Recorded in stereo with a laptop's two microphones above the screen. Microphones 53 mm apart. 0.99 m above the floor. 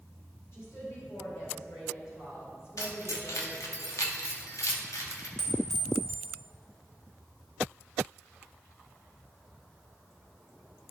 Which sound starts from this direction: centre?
A clink, at 5.4 s.